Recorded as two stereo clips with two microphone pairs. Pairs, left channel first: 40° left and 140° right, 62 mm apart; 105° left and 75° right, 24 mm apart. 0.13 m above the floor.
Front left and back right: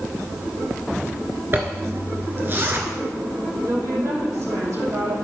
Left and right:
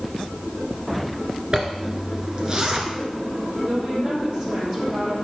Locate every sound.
1.5 s a zipper: 115° right, 1.3 m
3.7 s a woman speaking: 120° right, 4.5 m